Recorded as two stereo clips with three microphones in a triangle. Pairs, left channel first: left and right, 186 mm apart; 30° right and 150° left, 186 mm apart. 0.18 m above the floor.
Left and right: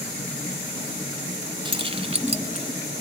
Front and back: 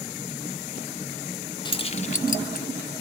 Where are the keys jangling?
65° right, 0.7 m; by 2.7 s 45° right, 1.1 m.